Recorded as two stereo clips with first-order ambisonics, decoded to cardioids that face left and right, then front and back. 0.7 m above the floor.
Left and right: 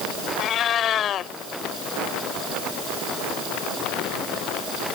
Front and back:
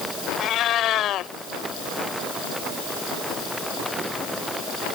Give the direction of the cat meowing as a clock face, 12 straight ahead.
11 o'clock.